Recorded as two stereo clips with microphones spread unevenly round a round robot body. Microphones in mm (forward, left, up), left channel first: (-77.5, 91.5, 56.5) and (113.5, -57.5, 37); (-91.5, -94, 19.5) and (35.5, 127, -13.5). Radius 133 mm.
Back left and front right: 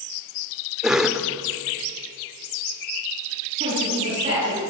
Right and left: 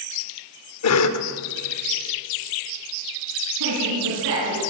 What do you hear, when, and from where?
0.8 s a cough: 120° right, 1.6 m
3.6 s a woman speaking: 30° left, 7 m